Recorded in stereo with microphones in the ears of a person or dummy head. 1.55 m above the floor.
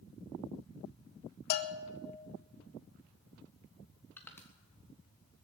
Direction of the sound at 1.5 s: 55° left (ahead or behind).